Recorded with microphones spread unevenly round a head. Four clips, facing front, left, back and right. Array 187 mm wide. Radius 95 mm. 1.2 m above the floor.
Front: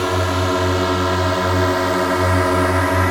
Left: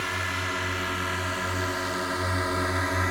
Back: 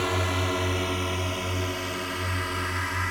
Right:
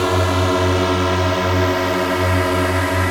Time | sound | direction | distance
0.0 | a drone | 65° right | ?